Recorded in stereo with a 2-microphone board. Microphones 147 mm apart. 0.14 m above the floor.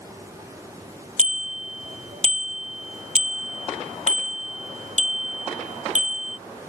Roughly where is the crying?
No crying in this recording.